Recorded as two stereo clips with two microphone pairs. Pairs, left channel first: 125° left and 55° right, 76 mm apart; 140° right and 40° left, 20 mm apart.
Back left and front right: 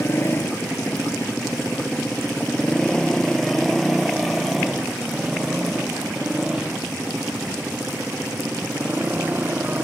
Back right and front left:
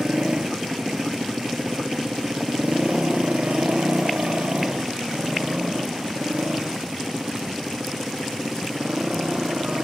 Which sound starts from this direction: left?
A motorcycle, at 0.0 s.